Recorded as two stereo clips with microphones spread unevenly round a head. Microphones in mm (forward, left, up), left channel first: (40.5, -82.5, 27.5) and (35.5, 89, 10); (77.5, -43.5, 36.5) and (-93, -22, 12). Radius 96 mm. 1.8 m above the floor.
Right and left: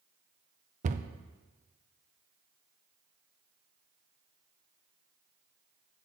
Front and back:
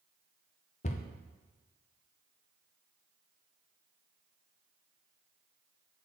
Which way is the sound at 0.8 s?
40° left.